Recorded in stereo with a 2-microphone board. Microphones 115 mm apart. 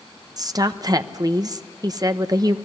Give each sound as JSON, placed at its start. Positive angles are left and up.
{"t": 0.4, "sound": "a woman speaking", "side_deg": -35, "distance_m": 1.0}